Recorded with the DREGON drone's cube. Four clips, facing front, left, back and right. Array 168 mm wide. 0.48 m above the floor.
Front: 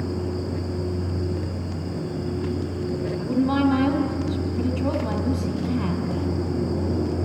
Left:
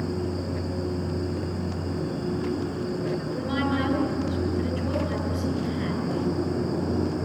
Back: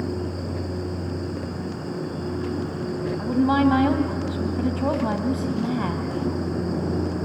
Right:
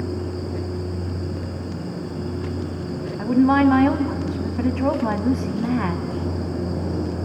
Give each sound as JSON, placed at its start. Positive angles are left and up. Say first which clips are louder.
{"t": 3.2, "sound": "a woman speaking", "louder": "right 11 dB, back 2 dB", "azimuth_deg": -115, "distance_m": 2.5}